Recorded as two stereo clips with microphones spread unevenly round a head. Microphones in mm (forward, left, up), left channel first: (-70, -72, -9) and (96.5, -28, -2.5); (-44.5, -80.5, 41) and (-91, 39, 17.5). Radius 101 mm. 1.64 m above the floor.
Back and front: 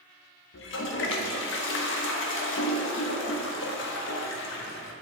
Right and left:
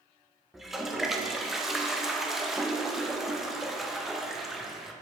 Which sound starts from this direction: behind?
A toilet flushing, at 0.5 s.